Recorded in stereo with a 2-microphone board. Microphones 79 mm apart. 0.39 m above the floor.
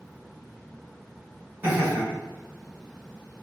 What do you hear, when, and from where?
1.6 s laughter: 30° right (ahead or behind), 1.6 m